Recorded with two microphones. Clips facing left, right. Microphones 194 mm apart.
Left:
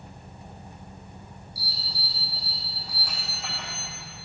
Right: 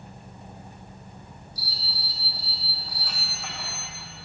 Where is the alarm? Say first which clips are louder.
Even; 10° left (ahead or behind), 6.5 m.